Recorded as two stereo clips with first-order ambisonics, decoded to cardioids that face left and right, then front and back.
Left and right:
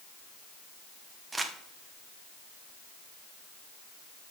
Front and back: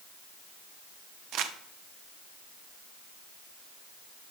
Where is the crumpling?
170° right, 0.7 m.